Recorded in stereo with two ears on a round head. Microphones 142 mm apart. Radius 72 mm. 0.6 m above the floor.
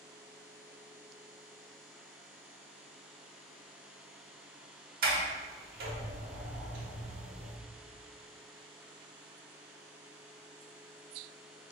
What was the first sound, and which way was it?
A sliding door, 60° right (ahead or behind).